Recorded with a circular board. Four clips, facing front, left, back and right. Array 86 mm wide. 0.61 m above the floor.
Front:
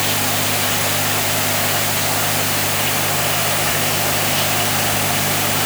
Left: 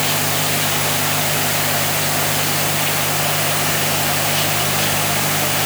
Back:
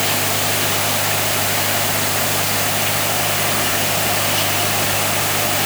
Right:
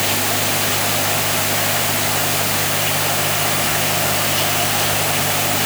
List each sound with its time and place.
Only background noise.